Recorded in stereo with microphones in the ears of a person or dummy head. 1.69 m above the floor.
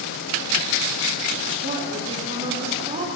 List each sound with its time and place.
1.6 s a woman speaking: 40° right (ahead or behind), 3 m